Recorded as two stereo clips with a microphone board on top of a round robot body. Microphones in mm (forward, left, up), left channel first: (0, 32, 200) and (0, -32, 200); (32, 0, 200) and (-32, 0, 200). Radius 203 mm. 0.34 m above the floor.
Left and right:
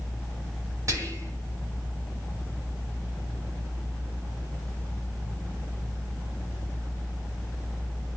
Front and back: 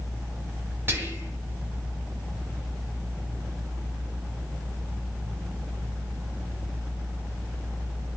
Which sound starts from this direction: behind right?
Whispering, at 0.9 s.